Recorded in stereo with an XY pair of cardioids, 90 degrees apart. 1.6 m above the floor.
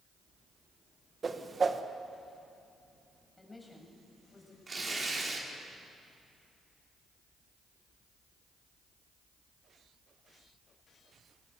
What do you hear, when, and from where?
1.2 s a whoosh: 35° right, 1.6 m
3.4 s a woman speaking: 15° left, 8 m
4.7 s tearing paper: 35° right, 4 m